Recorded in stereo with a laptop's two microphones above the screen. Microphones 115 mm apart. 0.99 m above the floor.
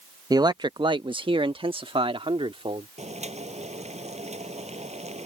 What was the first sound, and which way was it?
A man speaking, 30° right (ahead or behind).